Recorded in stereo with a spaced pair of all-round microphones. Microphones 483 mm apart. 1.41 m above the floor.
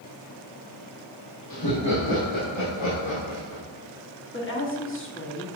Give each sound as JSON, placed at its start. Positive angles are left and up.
{"t": 1.5, "sound": "laughter", "side_deg": 45, "distance_m": 1.0}
{"t": 4.3, "sound": "a woman speaking", "side_deg": 25, "distance_m": 1.3}